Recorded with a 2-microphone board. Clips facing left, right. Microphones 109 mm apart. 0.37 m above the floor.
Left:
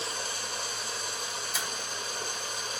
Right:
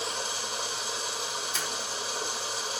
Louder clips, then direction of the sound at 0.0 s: Right 2 dB; 5° right (ahead or behind).